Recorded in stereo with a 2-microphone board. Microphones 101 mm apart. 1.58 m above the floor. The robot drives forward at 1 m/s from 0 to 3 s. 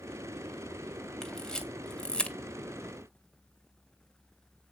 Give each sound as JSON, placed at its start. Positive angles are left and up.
{"t": 1.2, "sound": "a camera shutter", "side_deg": 5, "distance_m": 2.5}